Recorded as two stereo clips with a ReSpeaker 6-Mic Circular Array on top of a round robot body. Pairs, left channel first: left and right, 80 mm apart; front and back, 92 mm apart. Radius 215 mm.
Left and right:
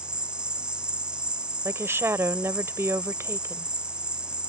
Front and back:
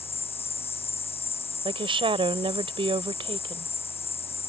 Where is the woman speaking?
150° right.